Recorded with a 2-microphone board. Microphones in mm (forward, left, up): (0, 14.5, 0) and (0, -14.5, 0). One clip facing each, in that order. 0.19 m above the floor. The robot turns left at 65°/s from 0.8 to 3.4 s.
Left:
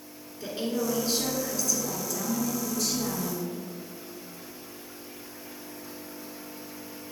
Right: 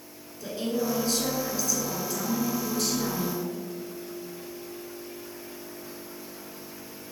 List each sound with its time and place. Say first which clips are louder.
0.4 s a woman speaking: right 1 dB; 45° left, 2 m; by 3.5 s 125° right, 2 m